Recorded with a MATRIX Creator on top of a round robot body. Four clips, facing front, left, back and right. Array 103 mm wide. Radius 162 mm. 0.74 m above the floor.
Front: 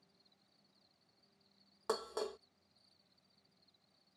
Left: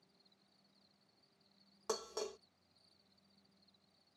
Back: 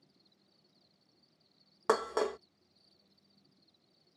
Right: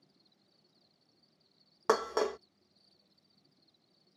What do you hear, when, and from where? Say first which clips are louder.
0.0 s an insect: right 4 dB, back 5 dB; 135° right
1.9 s dishes clattering: right 13 dB, back 9 dB; 125° right